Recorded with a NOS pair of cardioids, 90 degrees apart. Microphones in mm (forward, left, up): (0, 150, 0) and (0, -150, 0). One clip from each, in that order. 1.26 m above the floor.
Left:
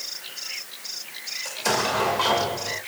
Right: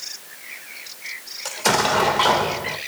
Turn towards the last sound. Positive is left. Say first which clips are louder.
# right 5 dB
turn(degrees=-40)